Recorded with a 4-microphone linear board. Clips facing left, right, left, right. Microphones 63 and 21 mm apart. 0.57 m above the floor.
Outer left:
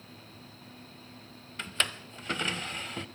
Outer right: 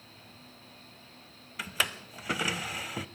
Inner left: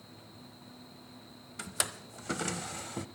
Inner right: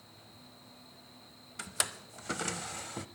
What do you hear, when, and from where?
1.6 s a drawer: 10° right (ahead or behind), 0.5 m